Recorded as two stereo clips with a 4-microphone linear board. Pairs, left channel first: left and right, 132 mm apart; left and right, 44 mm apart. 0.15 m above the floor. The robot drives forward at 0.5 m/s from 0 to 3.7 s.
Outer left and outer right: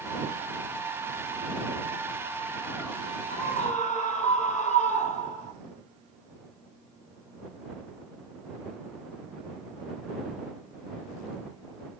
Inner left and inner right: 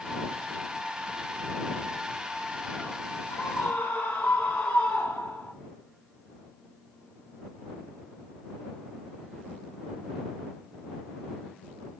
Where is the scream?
70° left (ahead or behind), 4 m.